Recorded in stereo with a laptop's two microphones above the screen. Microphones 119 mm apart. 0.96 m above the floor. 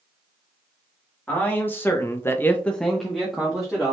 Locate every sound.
1.3 s a man speaking: 15° left (ahead or behind), 1.4 m; by 3.9 s 5° right (ahead or behind), 1.8 m